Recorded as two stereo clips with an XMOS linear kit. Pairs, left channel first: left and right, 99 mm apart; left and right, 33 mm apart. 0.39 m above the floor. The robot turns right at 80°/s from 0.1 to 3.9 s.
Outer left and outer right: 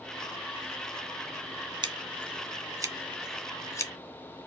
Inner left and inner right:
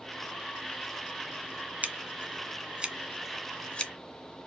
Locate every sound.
1.8 s scissors: 50° right (ahead or behind), 0.5 m; by 3.9 s 35° left (ahead or behind), 0.5 m